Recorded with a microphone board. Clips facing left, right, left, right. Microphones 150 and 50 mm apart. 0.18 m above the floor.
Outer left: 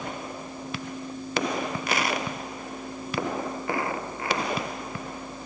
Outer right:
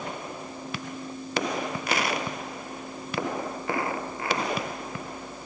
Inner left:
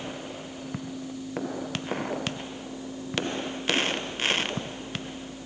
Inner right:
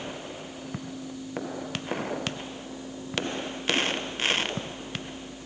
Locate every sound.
Only background noise.